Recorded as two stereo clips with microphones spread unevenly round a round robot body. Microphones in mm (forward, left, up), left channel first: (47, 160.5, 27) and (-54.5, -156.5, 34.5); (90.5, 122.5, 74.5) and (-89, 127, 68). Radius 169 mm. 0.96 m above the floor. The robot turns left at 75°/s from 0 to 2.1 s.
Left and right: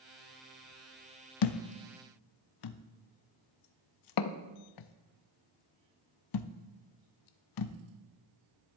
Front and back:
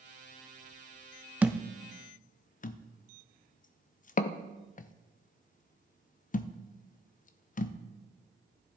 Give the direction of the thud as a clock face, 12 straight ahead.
9 o'clock.